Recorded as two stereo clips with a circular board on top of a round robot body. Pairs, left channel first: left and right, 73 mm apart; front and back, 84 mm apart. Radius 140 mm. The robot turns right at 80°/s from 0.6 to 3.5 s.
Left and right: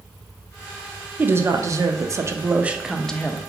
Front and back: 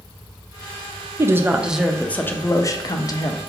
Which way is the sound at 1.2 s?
140° right.